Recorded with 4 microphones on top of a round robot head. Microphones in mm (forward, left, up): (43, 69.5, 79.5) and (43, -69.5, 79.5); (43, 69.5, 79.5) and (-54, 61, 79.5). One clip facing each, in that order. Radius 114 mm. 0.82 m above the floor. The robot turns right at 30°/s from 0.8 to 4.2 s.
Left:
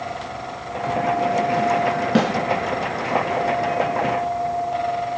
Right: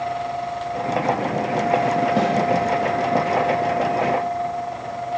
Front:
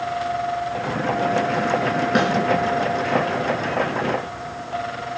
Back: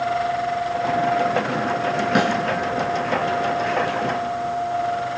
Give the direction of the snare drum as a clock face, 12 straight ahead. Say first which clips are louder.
Left 5 dB, back 1 dB; 9 o'clock.